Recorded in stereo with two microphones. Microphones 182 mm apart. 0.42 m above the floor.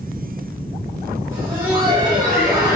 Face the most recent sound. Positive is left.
turn(degrees=-15)  # may be behind; listen again after turning